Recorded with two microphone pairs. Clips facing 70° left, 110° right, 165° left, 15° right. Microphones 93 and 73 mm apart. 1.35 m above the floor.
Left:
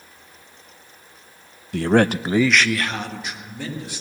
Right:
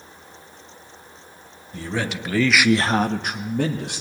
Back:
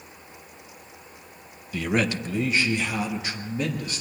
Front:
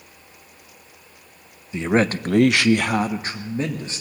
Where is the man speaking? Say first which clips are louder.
Left 10 dB, front 5 dB; 55° left, 0.8 m; by 4.0 s 80° right, 1.5 m.